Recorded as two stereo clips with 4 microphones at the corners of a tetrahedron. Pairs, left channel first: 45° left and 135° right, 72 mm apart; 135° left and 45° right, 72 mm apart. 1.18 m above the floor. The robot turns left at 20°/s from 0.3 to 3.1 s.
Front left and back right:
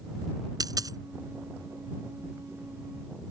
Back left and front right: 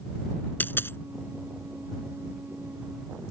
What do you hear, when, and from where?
0.6 s a dropped coin: 160° right; by 1.0 s 170° right